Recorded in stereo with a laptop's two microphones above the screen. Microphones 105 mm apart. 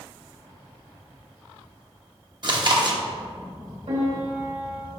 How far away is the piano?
About 1.9 m.